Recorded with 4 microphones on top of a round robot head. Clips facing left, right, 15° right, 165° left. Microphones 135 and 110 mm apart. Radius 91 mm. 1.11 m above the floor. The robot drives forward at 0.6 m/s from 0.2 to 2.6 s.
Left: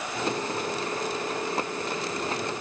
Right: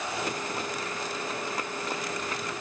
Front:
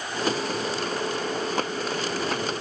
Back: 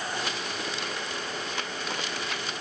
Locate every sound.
Only background noise.